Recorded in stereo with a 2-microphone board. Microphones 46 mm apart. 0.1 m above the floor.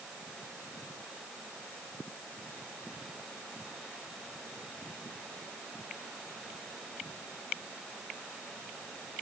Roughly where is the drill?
No drill in this recording.